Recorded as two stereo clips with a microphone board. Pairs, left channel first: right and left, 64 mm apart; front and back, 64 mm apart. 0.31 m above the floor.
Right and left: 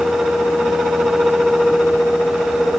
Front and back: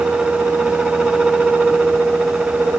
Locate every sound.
Only background noise.